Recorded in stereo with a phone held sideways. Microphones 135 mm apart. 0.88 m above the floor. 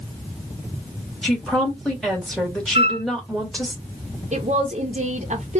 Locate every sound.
1.2 s a woman speaking: 5° left (ahead or behind), 1.9 m
2.8 s a flute: 50° right (ahead or behind), 1.0 m
4.3 s a woman speaking: 60° right (ahead or behind), 0.8 m